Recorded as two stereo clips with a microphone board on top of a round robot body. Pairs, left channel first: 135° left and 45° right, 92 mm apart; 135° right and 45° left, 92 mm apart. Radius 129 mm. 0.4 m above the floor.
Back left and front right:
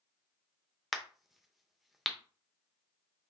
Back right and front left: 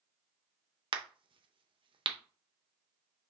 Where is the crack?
45° left, 0.8 m.